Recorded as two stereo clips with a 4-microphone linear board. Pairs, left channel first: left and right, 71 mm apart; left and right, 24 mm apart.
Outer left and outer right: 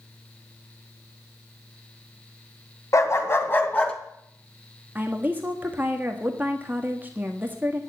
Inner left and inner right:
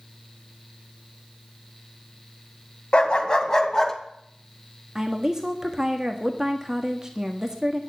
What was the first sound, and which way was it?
A dog barking, 50° left (ahead or behind).